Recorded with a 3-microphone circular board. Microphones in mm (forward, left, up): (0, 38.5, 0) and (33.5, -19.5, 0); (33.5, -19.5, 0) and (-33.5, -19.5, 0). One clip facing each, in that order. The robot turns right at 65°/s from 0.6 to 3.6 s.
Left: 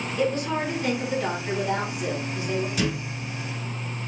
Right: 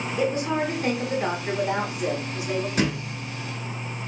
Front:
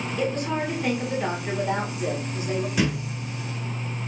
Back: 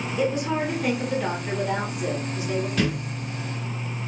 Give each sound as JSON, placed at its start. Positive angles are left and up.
{"t": 0.2, "sound": "a woman speaking", "azimuth_deg": -110, "distance_m": 1.3}
{"t": 2.8, "sound": "a thud", "azimuth_deg": -75, "distance_m": 0.7}